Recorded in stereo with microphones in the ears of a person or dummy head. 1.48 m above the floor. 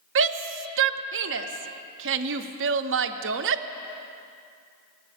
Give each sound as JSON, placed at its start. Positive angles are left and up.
{"t": 0.1, "sound": "a shout", "side_deg": -60, "distance_m": 0.6}